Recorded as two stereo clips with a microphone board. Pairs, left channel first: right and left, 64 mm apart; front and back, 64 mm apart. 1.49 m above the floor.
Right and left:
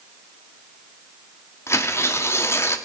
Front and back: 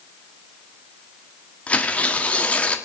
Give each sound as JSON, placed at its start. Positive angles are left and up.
{"t": 1.7, "sound": "tearing paper", "azimuth_deg": -65, "distance_m": 1.3}